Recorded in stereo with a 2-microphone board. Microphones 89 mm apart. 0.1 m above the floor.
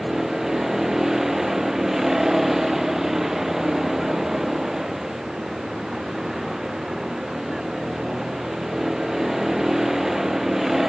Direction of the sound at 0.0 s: 5° right (ahead or behind).